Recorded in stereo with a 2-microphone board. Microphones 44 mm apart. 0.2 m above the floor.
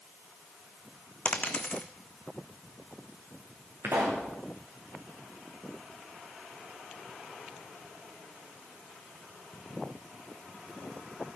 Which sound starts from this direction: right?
A pop, at 3.8 s.